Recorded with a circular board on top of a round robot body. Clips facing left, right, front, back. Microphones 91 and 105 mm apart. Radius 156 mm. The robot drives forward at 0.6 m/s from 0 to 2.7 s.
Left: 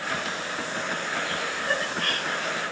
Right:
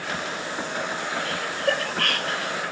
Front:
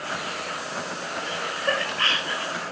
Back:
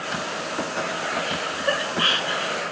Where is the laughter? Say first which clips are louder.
Right 6 dB, back 2 dB; 95° right, 4 m; by 2.5 s 105° right, 4 m.